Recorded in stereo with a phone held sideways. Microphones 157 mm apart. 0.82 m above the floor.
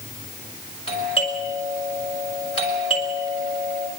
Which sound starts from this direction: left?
A doorbell, at 0.9 s.